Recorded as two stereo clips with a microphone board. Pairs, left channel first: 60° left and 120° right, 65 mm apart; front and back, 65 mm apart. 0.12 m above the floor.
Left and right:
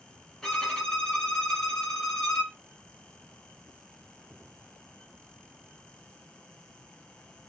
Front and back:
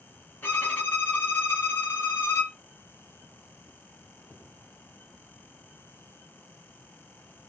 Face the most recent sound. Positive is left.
turn(degrees=-10)